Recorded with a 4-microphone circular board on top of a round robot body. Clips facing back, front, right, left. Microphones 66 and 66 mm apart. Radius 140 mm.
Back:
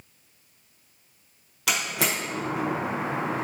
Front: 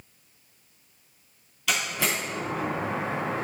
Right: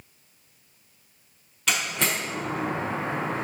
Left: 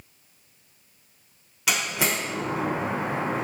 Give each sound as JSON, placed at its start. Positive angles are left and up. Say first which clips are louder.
{"t": 1.7, "sound": "a door slam", "louder": "back 1 dB, left 1 dB", "azimuth_deg": 170, "distance_m": 1.0}